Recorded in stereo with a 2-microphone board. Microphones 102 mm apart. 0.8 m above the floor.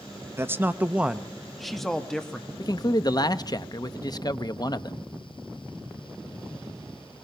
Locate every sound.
0.4 s a man speaking: 25° right (ahead or behind), 0.8 m; by 2.5 s 10° left (ahead or behind), 1.7 m
2.6 s a man speaking: 40° left (ahead or behind), 0.9 m